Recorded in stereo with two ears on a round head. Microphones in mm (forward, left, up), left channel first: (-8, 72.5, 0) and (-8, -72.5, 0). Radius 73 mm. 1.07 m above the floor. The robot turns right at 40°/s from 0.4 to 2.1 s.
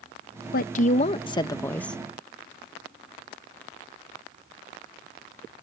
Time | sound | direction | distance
0.5 | a woman speaking | 120° left | ?